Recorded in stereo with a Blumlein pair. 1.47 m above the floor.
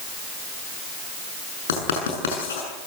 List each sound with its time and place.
1.7 s writing: 60° left, 7 m